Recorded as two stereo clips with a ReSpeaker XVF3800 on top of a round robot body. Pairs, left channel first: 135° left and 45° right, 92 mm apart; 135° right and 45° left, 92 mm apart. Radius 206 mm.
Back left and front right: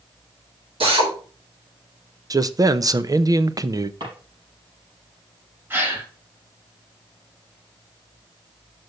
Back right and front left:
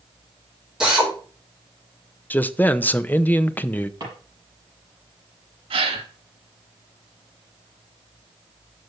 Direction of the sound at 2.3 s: 70° right.